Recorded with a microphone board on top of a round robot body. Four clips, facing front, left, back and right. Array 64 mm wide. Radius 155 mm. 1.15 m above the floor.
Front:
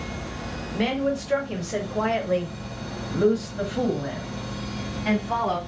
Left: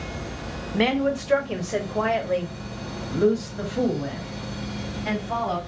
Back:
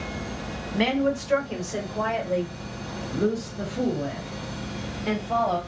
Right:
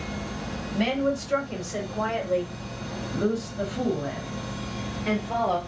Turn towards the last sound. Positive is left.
turn(degrees=5)